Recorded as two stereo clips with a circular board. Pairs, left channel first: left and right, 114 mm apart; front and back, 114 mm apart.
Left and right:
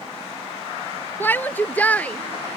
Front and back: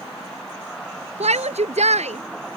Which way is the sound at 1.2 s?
165° left.